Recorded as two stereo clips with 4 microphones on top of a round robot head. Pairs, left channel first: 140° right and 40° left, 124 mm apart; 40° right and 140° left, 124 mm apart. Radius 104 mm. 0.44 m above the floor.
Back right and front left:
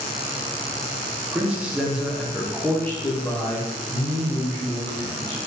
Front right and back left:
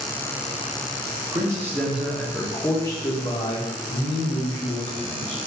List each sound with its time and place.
1.3 s a man speaking: 105° left, 0.8 m; by 5.4 s 75° right, 1.9 m